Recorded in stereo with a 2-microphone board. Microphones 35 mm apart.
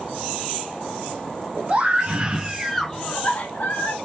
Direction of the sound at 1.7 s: 40° right (ahead or behind).